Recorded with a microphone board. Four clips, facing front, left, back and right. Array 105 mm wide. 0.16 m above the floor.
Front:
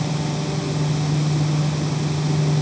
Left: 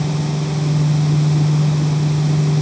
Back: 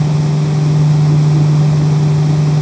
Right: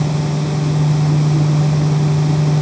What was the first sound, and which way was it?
Only background noise.